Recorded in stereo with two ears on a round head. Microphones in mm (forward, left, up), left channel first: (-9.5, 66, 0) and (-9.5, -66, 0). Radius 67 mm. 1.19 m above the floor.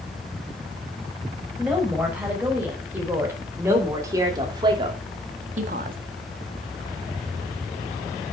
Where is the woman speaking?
10° right (ahead or behind), 5.5 m; by 6.0 s 65° right (ahead or behind), 1.6 m.